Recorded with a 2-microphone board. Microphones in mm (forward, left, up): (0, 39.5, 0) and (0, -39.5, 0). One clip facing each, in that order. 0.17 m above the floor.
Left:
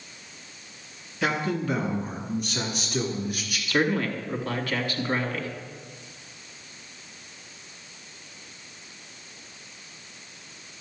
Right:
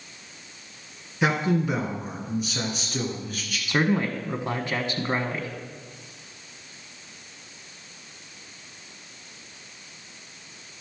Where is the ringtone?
I don't hear a ringtone.